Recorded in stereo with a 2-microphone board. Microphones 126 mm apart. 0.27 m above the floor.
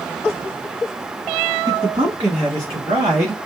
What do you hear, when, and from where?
1.7 s a man speaking: 45° right (ahead or behind), 2.5 m; by 3.5 s 60° right (ahead or behind), 3.5 m